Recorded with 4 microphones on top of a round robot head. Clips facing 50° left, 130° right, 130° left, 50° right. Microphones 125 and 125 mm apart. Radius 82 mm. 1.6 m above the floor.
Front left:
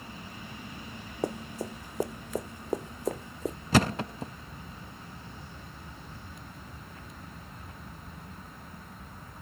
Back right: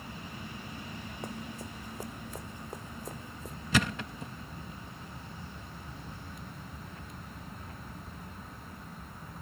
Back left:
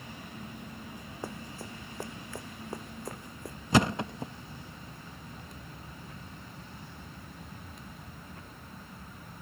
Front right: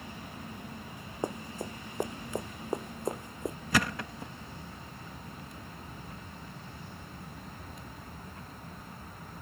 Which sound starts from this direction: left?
A thud, at 3.7 s.